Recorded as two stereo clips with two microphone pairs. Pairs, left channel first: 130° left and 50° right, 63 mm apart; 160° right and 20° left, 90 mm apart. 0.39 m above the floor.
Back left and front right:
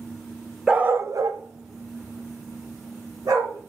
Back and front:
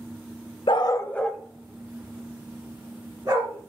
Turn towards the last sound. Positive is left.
turn(degrees=-25)